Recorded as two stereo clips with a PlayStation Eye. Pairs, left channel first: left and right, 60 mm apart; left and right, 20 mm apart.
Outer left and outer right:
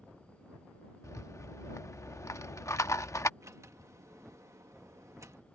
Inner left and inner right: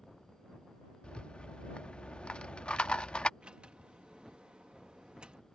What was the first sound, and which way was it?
A rattle, 55° left (ahead or behind).